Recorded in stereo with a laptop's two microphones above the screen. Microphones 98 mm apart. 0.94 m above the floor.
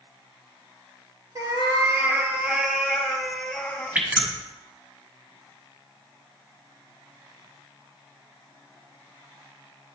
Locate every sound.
1.4 s a cat meowing: 40° right (ahead or behind), 1.5 m; by 4.0 s 15° left (ahead or behind), 1.8 m
4.0 s dripping: 15° right (ahead or behind), 1.3 m